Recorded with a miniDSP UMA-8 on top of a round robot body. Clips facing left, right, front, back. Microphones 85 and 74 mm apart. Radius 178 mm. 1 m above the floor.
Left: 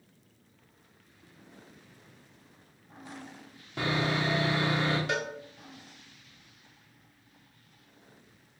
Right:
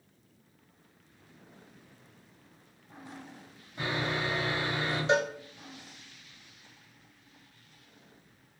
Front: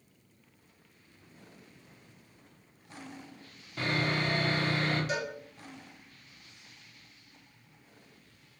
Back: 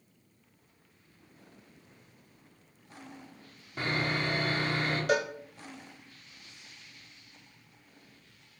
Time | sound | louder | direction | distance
3.8 | sawing | left 3 dB, front 1 dB | 105° left | 2 m
5.1 | a cowbell | right 6 dB, back 6 dB | 155° right | 1.2 m